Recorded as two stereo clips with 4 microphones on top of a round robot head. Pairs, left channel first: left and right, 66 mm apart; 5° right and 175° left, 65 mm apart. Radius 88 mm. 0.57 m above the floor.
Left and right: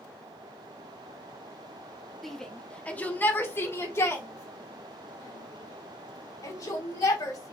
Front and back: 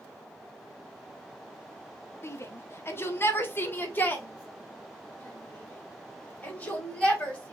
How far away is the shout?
About 1.0 m.